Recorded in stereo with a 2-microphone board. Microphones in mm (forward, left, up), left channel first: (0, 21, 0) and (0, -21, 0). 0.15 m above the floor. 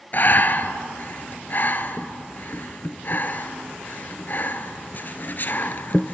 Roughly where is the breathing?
Left.